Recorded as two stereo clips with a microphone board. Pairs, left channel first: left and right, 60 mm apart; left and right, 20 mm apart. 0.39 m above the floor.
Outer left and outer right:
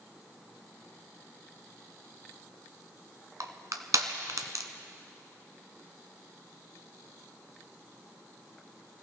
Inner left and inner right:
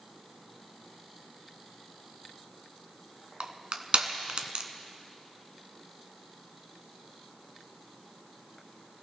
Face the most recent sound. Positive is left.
turn(degrees=-65)  # may be behind; listen again after turning